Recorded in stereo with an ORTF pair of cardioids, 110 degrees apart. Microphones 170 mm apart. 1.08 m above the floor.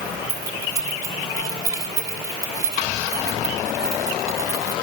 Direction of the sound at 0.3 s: 20° right.